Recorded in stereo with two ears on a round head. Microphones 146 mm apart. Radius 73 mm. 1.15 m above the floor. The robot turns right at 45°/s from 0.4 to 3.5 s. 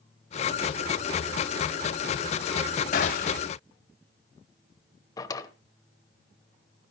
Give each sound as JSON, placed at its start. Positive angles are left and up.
{"t": 2.9, "sound": "a gunshot", "side_deg": 50, "distance_m": 1.5}
{"t": 5.2, "sound": "a drawer", "side_deg": 25, "distance_m": 0.9}